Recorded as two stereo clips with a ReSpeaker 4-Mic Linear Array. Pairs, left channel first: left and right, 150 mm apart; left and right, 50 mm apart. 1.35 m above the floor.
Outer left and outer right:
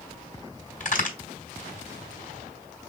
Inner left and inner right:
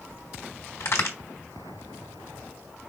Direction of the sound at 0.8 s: 60° left (ahead or behind).